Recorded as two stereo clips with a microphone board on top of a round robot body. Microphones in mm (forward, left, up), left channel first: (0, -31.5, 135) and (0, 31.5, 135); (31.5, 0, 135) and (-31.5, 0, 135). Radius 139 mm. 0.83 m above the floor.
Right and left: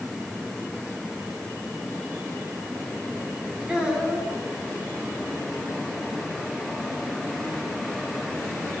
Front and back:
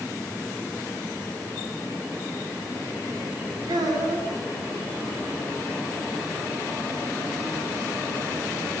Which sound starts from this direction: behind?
A child speaking, at 3.7 s.